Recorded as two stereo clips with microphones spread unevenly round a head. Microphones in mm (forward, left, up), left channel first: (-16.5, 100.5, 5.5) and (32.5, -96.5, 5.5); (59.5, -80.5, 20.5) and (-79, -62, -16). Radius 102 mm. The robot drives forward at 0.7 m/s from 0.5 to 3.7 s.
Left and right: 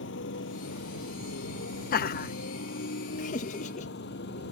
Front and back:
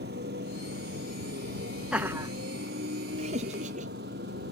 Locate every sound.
0.0 s a motorcycle: 140° left; by 4.5 s 145° left
1.9 s laughter: 110° left; by 3.9 s 155° left